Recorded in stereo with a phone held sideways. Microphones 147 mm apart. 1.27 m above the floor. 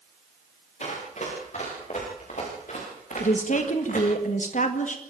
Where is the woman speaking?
65° left (ahead or behind), 1.7 m.